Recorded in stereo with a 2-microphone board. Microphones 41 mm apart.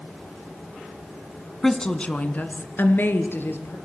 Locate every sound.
1.6 s a woman speaking: 10° left (ahead or behind), 1.4 m; by 3.8 s 65° left (ahead or behind), 3.5 m